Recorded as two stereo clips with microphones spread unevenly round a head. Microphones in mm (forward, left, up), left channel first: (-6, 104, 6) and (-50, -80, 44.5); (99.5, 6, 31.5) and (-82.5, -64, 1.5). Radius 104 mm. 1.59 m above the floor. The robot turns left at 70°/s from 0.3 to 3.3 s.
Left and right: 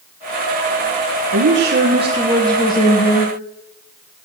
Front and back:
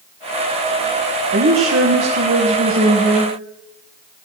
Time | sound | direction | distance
1.3 | a woman speaking | 115° right | 1.5 m